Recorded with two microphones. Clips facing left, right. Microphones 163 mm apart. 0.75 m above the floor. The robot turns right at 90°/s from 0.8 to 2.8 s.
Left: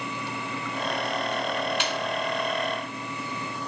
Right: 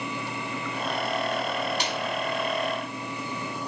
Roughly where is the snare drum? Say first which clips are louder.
Left 1 dB; right.